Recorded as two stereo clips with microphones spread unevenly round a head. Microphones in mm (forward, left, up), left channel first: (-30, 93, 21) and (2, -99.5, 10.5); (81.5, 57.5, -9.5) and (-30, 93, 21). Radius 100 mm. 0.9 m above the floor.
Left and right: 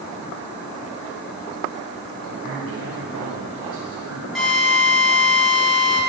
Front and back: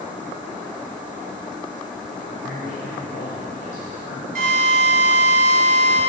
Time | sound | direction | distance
2.3 | a man speaking | 60° right | 2.5 m
4.3 | a drill | 175° right | 6 m